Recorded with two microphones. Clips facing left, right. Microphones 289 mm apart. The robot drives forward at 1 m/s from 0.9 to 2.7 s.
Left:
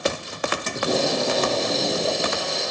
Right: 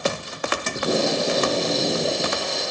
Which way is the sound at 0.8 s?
15° right (ahead or behind).